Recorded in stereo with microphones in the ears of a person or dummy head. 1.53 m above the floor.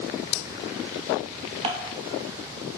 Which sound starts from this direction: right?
Dishes clattering, at 1.6 s.